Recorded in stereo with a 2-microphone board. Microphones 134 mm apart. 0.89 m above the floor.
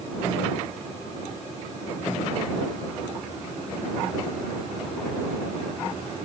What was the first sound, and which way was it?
Only background noise.